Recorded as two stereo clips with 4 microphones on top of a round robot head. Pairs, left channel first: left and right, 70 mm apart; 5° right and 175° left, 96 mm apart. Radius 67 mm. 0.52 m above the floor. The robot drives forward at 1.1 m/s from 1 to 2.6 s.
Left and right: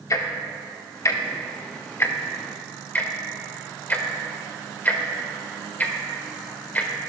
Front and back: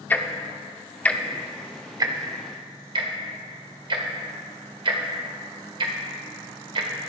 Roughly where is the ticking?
Ahead left.